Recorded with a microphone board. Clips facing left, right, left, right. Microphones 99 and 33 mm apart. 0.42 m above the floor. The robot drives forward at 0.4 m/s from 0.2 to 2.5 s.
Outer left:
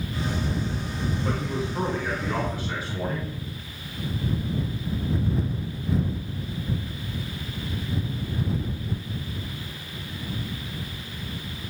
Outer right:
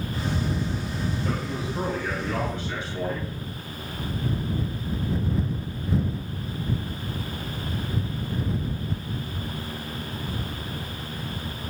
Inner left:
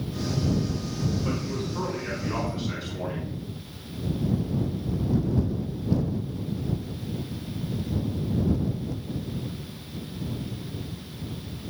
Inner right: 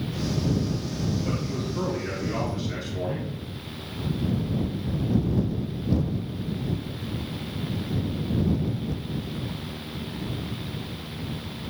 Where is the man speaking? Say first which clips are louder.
Outer left 1 dB, even; 40° left (ahead or behind), 3.5 m; by 3.3 s 45° left (ahead or behind), 3.5 m.